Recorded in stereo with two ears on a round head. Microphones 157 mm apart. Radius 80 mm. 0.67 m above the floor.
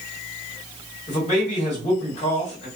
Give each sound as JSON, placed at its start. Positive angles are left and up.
{"t": 1.1, "sound": "a man speaking", "side_deg": 35, "distance_m": 1.6}